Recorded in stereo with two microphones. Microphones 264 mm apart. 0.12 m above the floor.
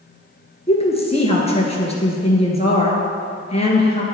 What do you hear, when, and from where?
0.7 s a woman speaking: 20° left (ahead or behind), 1.9 m